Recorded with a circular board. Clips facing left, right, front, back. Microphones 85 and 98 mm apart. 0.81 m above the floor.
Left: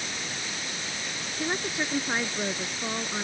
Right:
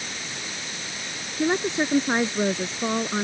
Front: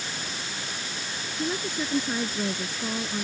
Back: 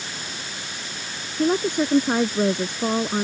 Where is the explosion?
I don't hear an explosion.